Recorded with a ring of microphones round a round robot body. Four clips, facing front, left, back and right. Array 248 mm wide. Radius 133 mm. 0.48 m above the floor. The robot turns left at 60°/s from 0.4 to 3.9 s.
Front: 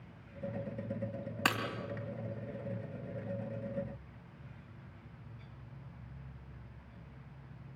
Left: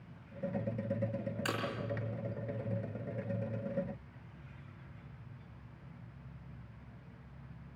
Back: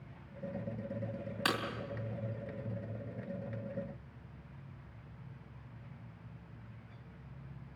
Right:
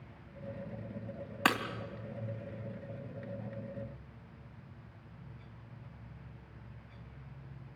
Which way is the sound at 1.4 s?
75° right.